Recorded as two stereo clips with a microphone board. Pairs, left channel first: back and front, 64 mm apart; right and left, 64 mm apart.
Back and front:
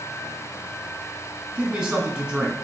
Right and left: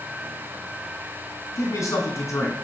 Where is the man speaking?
85° right, 2.5 m.